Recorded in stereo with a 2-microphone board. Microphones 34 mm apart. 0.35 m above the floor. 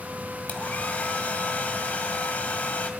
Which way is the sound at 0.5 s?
40° left (ahead or behind).